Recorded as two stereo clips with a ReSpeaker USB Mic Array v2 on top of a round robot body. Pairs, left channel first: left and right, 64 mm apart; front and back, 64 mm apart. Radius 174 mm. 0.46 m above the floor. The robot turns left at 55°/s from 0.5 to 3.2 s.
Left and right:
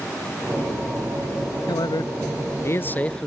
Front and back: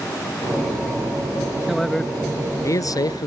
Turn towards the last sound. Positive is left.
turn(degrees=10)